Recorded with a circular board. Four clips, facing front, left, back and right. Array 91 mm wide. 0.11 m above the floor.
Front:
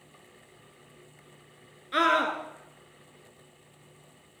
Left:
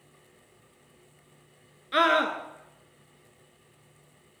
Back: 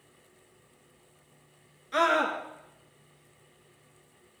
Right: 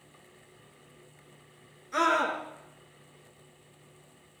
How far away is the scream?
About 1.2 m.